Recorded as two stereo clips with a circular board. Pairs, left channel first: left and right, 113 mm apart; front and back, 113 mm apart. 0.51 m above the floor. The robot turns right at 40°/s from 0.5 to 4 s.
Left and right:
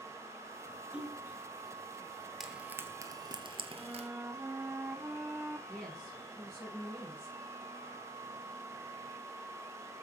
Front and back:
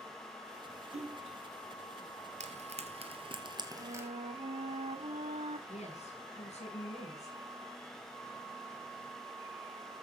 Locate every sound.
0.9 s a splash: 170° right, 3.5 m; by 1.4 s 155° right, 3.5 m
2.4 s frying: straight behind, 2 m; by 4.1 s 115° right, 2 m
3.7 s a flute: 175° right, 0.8 m; by 5.6 s 165° right, 0.8 m
5.7 s a woman speaking: straight ahead, 6.5 m